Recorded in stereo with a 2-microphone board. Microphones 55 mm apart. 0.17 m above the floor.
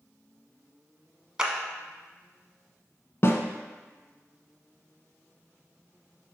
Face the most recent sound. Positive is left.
turn(degrees=50)  # may be behind; listen again after turning